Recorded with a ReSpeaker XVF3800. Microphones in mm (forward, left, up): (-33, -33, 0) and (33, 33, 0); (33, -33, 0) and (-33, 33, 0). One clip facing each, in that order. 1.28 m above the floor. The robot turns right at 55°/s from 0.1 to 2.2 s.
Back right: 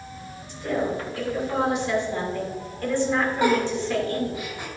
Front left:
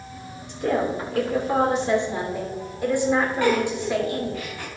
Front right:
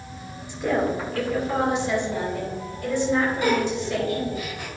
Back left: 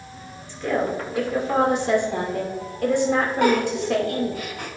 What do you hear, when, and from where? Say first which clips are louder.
0.5 s a woman speaking: front left 3 dB, even; 25° left, 2.5 m; by 4.4 s 120° left, 2.5 m
3.4 s a giggle: even, back left 3 dB; 155° left, 3 m